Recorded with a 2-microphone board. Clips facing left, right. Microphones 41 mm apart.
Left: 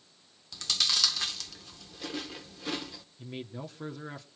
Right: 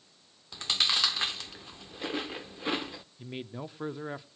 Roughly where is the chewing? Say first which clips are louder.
Right 2 dB; right.